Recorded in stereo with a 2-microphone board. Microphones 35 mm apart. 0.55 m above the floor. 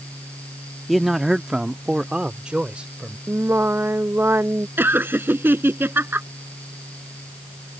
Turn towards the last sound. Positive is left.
turn(degrees=-80)